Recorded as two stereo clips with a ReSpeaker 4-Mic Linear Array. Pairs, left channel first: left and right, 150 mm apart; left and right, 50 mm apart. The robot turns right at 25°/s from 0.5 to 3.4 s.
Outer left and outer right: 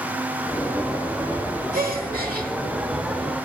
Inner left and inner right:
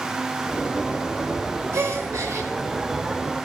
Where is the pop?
No pop in this recording.